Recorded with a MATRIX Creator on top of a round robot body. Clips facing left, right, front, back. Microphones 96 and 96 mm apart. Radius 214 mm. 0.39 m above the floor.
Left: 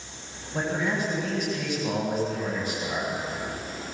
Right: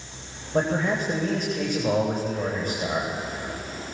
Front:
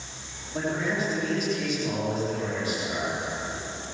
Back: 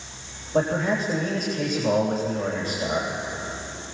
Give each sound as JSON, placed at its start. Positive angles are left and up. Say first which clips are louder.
{"t": 0.5, "sound": "a man speaking", "louder": "right 4 dB, back 5 dB", "azimuth_deg": -135, "distance_m": 3.5}